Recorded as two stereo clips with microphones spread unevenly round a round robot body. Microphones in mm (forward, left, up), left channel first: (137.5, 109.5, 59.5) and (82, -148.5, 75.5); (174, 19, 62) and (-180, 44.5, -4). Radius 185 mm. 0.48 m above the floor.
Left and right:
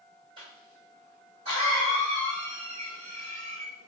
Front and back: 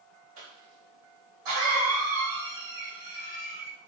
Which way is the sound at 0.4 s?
175° right.